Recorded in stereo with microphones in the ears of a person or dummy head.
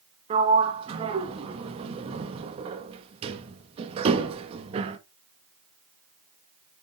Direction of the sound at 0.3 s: 30° right (ahead or behind).